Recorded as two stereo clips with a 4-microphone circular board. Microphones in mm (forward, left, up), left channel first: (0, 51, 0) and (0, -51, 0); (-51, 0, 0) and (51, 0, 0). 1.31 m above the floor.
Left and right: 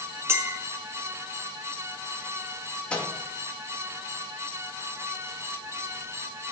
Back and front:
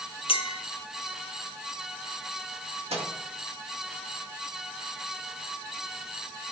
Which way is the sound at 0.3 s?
155° right.